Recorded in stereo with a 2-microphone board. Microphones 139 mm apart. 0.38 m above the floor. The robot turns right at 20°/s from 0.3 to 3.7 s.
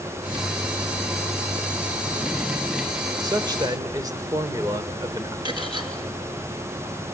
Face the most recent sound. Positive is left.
turn(degrees=-35)  # may be behind; listen again after turning